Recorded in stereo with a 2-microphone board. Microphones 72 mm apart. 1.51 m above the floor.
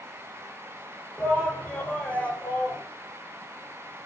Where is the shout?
10° left (ahead or behind), 5 m; by 2.8 s 20° left (ahead or behind), 6.5 m.